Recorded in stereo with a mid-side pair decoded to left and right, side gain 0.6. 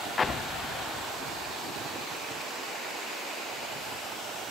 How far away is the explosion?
About 0.6 m.